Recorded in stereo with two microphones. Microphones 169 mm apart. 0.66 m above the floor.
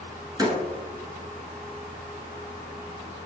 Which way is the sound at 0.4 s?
25° right (ahead or behind).